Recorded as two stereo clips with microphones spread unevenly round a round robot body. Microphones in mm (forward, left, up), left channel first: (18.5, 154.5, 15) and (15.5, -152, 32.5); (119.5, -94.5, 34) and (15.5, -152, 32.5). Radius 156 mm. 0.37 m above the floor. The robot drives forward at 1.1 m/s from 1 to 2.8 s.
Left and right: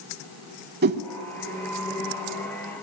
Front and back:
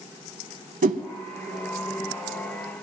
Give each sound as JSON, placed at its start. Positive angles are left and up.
{"t": 0.8, "sound": "a whoosh", "azimuth_deg": -155, "distance_m": 0.8}